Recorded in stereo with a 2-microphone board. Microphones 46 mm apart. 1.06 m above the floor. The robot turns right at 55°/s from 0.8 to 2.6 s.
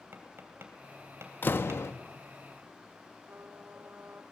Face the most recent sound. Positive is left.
turn(degrees=-60)  # may be behind; listen again after turning